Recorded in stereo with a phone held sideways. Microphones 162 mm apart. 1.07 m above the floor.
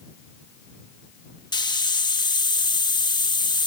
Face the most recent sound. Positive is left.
turn(degrees=25)  # may be behind; listen again after turning